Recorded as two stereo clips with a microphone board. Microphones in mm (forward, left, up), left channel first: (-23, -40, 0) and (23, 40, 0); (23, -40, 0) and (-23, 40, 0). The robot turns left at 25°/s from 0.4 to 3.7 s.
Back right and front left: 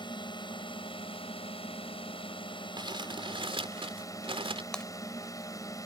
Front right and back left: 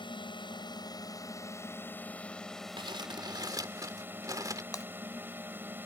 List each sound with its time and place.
0.0 s a drone: 90° right; by 5.9 s 170° right
2.8 s crumpling: 95° left; by 4.6 s 70° left
4.7 s breaking glass: 45° right